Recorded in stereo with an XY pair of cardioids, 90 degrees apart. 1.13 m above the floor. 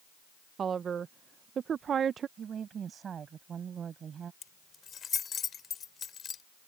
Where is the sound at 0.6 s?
55° right.